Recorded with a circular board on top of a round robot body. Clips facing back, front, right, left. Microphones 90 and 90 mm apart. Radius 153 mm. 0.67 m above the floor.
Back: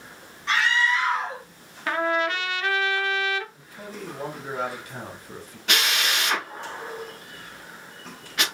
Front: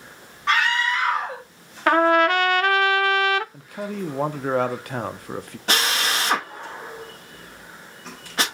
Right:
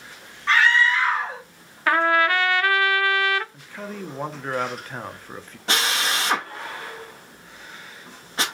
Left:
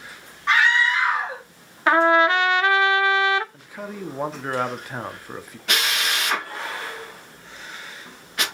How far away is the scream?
About 2 m.